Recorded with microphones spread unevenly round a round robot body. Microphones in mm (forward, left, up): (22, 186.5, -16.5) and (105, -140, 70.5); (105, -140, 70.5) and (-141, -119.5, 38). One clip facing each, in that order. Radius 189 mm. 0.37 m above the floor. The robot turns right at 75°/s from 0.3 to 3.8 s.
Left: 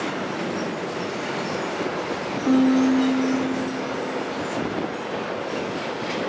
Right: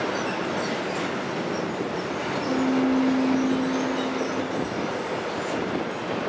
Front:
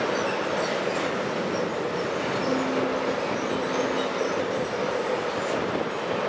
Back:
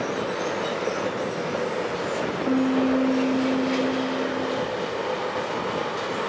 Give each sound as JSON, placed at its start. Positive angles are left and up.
{"t": 2.5, "sound": "a piano", "azimuth_deg": 120, "distance_m": 0.7}